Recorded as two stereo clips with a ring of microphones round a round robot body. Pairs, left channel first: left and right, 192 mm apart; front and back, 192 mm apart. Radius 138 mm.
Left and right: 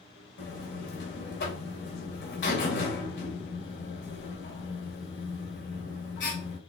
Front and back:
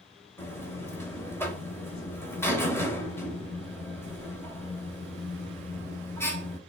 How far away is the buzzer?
About 2.5 m.